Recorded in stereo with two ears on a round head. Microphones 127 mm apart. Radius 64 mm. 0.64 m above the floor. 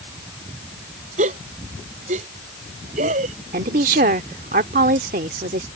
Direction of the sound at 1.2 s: 55° right (ahead or behind).